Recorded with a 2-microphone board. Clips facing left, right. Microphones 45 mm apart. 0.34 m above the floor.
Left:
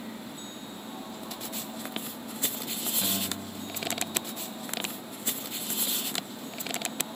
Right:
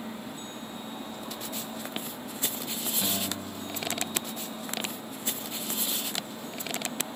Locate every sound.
3.0 s a guitar: 5° right (ahead or behind), 2 m